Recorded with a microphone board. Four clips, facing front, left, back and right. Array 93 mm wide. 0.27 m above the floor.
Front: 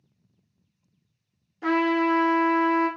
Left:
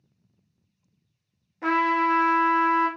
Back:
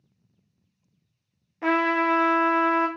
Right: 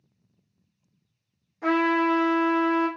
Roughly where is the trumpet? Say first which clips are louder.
Even, even; behind.